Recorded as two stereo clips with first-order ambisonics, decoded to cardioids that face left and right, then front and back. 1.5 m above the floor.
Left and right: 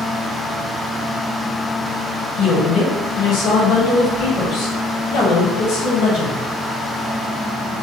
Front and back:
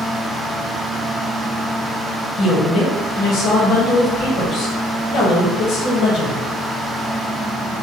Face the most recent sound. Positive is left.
turn(degrees=50)